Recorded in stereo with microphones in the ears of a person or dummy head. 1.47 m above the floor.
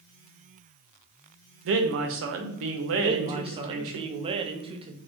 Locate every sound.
1.6 s a man speaking: 70° right (ahead or behind), 0.7 m
3.0 s a man speaking: 30° right (ahead or behind), 0.5 m